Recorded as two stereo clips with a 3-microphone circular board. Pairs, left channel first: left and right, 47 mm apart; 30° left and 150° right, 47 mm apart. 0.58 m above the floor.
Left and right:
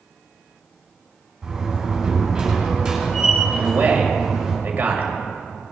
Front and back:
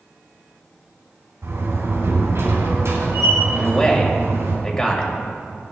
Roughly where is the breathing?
No breathing in this recording.